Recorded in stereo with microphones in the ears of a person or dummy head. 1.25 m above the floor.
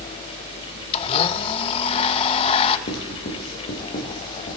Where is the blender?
30° left (ahead or behind), 0.6 m.